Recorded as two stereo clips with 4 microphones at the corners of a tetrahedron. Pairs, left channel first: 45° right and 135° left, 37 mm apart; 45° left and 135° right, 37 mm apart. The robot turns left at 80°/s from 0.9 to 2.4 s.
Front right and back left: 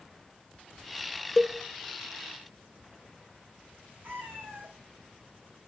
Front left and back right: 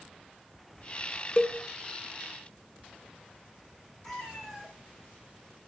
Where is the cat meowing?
125° left, 3 m.